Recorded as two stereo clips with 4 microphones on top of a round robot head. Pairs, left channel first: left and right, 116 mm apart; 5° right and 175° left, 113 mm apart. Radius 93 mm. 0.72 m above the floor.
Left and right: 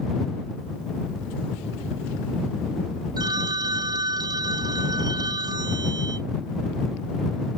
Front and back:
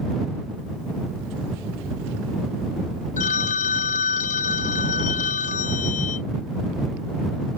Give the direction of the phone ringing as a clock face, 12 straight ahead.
1 o'clock.